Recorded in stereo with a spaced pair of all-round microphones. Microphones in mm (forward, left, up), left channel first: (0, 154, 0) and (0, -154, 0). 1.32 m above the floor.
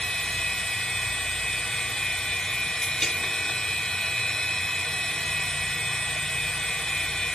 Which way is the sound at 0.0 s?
Centre (ahead or behind).